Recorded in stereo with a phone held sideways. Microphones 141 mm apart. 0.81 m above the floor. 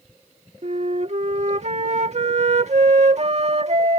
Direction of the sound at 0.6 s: 50° right (ahead or behind).